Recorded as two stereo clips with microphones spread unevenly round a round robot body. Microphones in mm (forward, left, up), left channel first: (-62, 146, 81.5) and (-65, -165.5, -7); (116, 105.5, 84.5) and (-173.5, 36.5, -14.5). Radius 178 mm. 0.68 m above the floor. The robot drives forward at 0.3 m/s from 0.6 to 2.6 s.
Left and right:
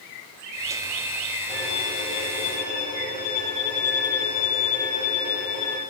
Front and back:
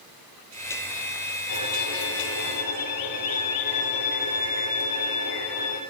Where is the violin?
15° left, 6.5 m.